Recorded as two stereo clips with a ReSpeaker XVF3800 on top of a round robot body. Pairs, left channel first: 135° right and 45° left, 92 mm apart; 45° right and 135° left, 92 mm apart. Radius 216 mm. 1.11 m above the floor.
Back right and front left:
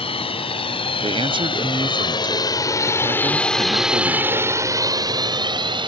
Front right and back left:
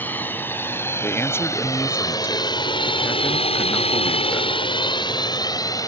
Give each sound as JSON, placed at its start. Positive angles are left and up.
{"t": 0.0, "sound": "a drone", "azimuth_deg": -115}
{"t": 1.0, "sound": "a man speaking", "azimuth_deg": 20}